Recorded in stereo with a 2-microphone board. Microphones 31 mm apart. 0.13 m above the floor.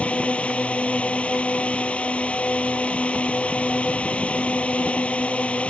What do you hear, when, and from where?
0.0 s a drone: 45° left (ahead or behind)